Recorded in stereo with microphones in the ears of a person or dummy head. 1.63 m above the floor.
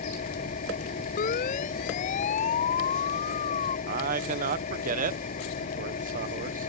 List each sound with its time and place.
0.0 s an engine running: 40° left (ahead or behind)
1.2 s a siren: 50° left (ahead or behind); by 3.8 s 40° left (ahead or behind)
3.9 s a man speaking: 45° right (ahead or behind)